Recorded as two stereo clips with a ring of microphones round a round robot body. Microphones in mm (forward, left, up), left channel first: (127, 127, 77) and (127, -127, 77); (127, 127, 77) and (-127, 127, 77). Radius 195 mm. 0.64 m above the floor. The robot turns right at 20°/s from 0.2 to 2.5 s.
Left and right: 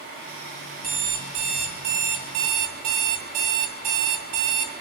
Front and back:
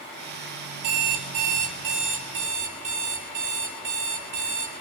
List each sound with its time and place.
0.8 s an alarm clock: 150° right, 1.8 m; by 4.8 s 120° right, 1.8 m